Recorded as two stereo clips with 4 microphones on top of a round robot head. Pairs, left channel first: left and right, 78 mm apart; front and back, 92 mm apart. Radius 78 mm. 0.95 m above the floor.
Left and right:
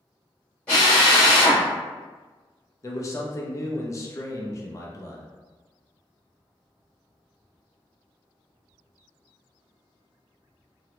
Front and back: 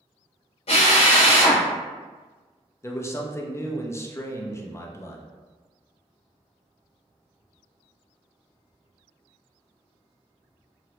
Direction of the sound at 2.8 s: 50° left.